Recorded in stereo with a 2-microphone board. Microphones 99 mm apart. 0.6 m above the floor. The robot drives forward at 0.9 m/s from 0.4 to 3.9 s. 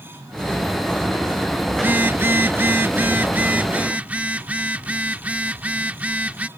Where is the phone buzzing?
20° right (ahead or behind); by 6.5 s 15° right (ahead or behind).